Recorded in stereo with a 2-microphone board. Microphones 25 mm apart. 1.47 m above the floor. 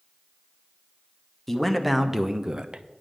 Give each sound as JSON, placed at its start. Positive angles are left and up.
{"t": 1.5, "sound": "a man speaking", "side_deg": 10, "distance_m": 0.9}